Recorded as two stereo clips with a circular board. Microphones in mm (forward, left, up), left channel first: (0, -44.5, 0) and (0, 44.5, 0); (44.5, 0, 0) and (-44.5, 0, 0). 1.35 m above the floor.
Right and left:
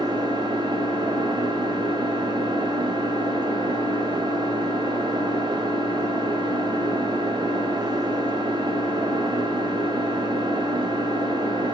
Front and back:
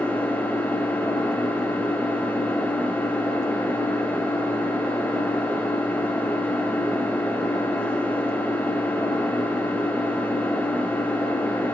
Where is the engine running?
75° left, 1.9 m.